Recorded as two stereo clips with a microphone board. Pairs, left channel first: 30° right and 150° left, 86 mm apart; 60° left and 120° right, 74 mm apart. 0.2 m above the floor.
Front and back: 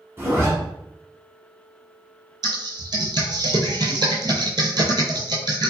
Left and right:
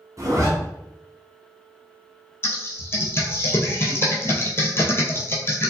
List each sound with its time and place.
0.2 s a zipper: 155° right, 0.9 m
2.4 s typing on a keyboard: 115° left, 0.7 m